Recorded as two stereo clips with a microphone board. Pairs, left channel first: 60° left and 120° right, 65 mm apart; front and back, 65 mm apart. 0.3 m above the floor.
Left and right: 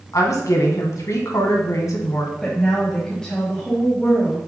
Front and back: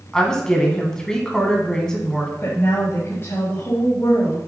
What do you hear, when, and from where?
0.1 s a woman speaking: 75° left, 1.9 m
2.4 s a woman speaking: 15° right, 2 m